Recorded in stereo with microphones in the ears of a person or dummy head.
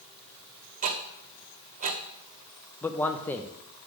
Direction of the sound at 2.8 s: 15° left (ahead or behind).